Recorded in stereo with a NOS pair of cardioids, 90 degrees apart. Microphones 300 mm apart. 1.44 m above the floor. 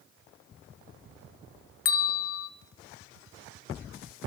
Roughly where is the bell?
Ahead left.